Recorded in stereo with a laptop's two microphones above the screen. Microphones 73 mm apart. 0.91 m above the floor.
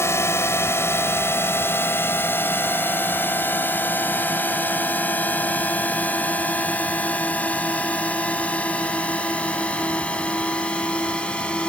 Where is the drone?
35° left (ahead or behind); by 11.7 s 15° left (ahead or behind).